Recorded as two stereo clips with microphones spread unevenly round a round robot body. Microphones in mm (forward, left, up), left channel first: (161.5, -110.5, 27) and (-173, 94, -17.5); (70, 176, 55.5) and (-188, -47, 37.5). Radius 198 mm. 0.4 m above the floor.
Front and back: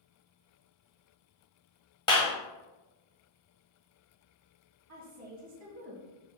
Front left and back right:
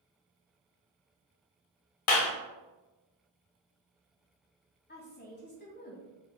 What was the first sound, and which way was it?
A clap, 50° left.